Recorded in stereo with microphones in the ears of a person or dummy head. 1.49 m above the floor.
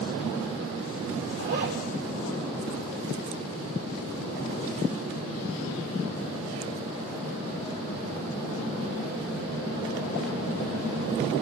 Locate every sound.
1.4 s a zipper: 55° right (ahead or behind), 2.5 m